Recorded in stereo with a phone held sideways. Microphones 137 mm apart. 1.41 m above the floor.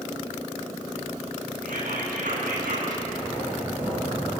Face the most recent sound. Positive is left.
turn(degrees=-15)  # may be behind; listen again after turning